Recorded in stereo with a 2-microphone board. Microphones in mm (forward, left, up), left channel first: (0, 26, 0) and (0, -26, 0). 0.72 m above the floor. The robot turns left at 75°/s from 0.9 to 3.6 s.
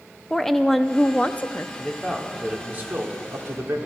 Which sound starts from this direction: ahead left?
A man speaking, at 1.8 s.